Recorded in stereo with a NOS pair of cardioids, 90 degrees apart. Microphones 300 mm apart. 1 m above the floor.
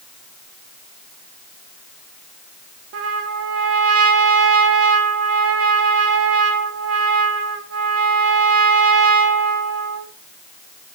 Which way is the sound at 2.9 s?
55° right.